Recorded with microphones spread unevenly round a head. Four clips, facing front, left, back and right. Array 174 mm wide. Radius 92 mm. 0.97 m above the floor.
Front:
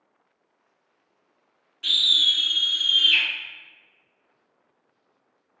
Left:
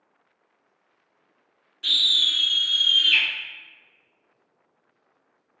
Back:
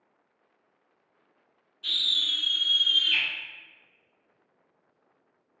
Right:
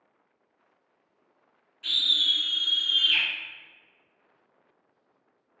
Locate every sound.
1.8 s a scream: 60° left, 1.0 m; by 3.2 s 150° right, 1.6 m